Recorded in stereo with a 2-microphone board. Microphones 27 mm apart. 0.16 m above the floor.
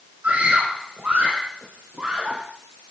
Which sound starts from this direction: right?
A scream, at 0.2 s.